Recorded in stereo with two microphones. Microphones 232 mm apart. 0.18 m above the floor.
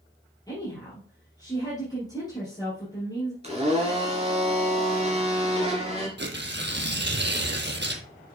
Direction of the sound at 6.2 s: 50° right (ahead or behind).